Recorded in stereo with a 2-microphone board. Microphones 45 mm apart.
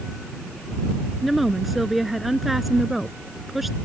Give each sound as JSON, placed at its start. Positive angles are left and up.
{"t": 1.2, "sound": "a woman speaking", "side_deg": -5}